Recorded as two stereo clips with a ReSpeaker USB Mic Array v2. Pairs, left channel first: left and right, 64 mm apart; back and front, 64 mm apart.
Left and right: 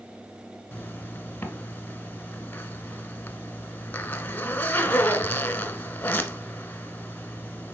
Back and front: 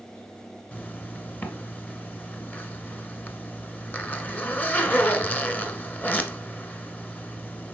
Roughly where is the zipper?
Behind left.